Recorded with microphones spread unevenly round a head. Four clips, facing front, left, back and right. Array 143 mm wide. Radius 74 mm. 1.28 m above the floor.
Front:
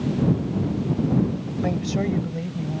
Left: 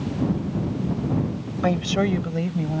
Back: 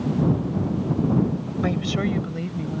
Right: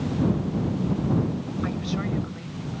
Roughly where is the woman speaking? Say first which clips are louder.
Left 10 dB, even; left.